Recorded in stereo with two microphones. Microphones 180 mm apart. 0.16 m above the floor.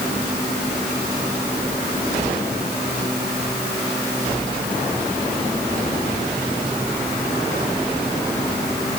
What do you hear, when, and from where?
Only background noise.